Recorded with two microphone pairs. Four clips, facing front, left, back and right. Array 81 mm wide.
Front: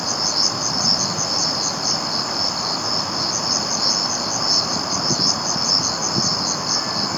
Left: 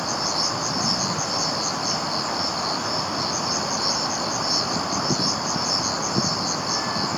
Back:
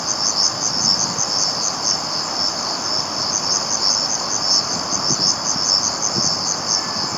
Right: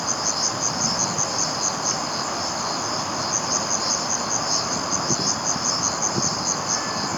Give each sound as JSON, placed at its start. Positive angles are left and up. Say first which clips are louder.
{"t": 0.0, "sound": "an insect", "louder": "left 1 dB, front 1 dB", "azimuth_deg": 0, "distance_m": 0.8}